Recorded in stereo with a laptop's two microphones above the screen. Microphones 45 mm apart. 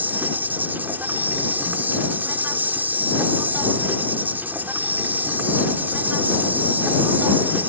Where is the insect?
45° right (ahead or behind).